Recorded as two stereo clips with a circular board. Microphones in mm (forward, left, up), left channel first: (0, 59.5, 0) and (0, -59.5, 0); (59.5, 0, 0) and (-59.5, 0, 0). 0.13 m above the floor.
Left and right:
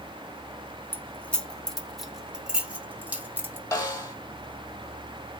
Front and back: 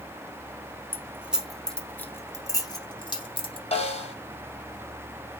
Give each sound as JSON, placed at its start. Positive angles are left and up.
{"t": 0.9, "sound": "keys jangling", "azimuth_deg": 145, "distance_m": 0.8}
{"t": 3.7, "sound": "a snare drum", "azimuth_deg": 25, "distance_m": 1.3}